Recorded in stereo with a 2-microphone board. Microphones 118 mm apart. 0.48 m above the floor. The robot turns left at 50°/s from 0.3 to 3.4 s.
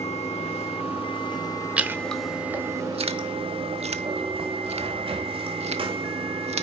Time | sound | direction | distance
0.0 | running water | 95° left | 1.8 m
1.8 | chewing | 10° right (ahead or behind) | 0.8 m